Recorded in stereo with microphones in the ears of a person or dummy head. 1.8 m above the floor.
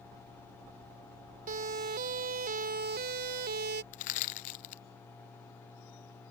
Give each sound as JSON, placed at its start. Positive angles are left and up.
{"t": 1.5, "sound": "a siren", "side_deg": -40}
{"t": 3.9, "sound": "crushing", "side_deg": 40}